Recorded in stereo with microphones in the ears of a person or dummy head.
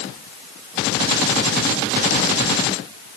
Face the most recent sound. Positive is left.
No sound to turn to.